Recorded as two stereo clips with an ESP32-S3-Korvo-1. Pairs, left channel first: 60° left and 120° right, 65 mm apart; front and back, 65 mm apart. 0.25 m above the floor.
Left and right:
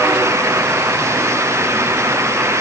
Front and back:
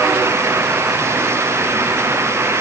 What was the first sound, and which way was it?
Only background noise.